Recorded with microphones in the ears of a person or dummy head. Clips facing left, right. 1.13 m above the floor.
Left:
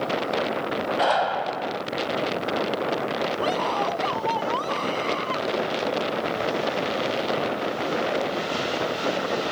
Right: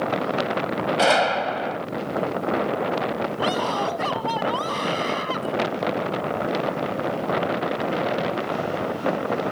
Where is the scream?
15° right (ahead or behind).